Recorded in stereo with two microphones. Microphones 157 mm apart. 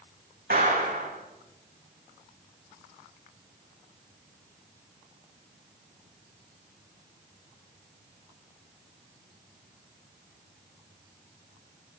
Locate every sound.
0.5 s a clap: 60° right (ahead or behind), 7.5 m